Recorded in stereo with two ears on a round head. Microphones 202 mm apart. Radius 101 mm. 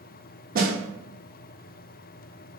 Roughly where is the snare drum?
Right.